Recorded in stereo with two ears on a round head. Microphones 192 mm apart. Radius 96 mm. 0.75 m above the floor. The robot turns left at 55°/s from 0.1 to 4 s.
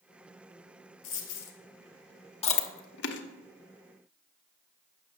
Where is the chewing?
30° left (ahead or behind), 1.0 m; by 3.2 s 60° left (ahead or behind), 1.0 m.